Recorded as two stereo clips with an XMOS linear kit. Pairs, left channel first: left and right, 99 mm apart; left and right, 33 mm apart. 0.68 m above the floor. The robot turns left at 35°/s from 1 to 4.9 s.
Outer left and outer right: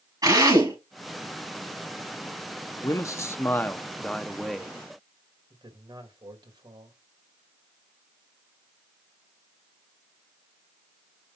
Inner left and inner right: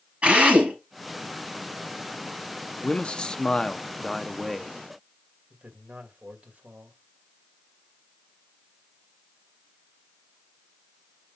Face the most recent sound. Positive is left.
turn(degrees=-50)  # may be behind; listen again after turning